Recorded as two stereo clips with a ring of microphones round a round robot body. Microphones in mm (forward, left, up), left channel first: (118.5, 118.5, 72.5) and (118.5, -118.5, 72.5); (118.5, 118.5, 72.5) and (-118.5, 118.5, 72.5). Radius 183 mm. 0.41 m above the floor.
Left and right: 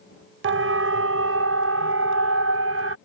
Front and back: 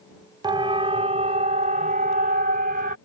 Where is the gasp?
I don't hear a gasp.